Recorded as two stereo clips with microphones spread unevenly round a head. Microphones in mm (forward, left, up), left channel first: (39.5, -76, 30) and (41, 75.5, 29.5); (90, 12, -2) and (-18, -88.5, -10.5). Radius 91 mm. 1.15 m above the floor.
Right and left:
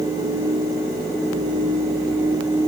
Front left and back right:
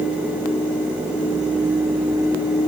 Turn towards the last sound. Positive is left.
No sound to turn to.